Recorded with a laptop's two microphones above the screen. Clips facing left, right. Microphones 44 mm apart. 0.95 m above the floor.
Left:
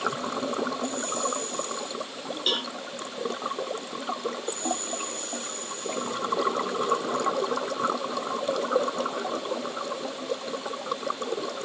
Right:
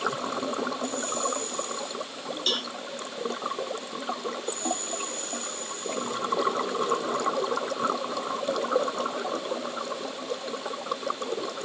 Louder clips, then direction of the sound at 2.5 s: Left 1 dB; 10° left (ahead or behind).